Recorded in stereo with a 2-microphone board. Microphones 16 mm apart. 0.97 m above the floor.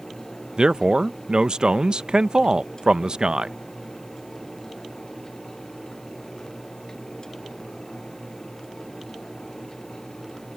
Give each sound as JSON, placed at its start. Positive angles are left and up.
{"t": 0.6, "sound": "a man speaking", "side_deg": -55}